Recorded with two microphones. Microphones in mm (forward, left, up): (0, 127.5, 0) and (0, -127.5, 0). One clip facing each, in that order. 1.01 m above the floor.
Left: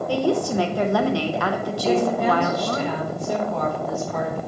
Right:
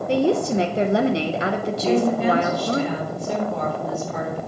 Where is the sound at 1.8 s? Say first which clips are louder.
Right 1 dB; 5° right (ahead or behind), 4 m.